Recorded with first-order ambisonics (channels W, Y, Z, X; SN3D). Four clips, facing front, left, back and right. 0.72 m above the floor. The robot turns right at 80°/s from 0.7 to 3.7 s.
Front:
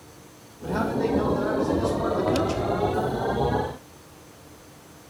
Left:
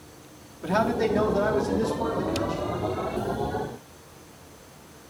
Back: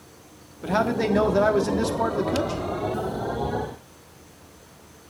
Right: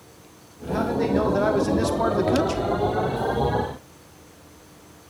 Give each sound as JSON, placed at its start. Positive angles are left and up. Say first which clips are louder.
{"t": 0.6, "sound": "a man speaking", "louder": "even, back 2 dB", "azimuth_deg": 150, "distance_m": 1.4}